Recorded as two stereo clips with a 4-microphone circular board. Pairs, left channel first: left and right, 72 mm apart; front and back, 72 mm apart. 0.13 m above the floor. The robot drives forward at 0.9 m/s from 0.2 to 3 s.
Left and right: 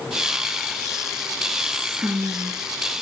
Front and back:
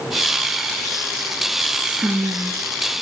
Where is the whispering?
105° right, 1.2 m; by 3.0 s 155° right, 1.8 m.